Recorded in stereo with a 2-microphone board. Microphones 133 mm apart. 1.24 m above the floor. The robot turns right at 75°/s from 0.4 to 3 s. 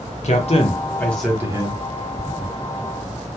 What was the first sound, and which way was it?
A man speaking, 120° left.